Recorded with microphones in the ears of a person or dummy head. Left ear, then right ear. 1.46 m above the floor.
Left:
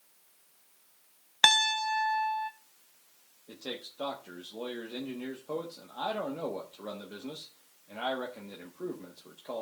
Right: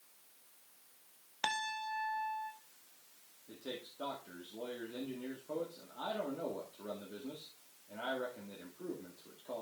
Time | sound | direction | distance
1.4 | a piano | 70° left (ahead or behind) | 0.6 m
3.5 | a man speaking | 75° left (ahead or behind) | 1.4 m